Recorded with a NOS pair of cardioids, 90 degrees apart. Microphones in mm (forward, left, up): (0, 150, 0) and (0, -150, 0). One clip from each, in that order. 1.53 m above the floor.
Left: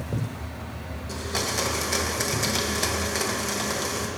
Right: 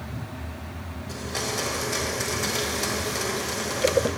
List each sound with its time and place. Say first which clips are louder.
1.1 s a blender: left 2 dB; 20° left, 1.9 m